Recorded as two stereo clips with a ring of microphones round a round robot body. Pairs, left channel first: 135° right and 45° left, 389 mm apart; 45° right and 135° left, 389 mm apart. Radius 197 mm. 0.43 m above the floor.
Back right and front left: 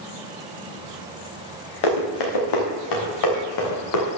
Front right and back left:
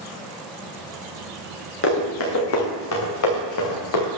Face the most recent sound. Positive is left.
turn(degrees=-85)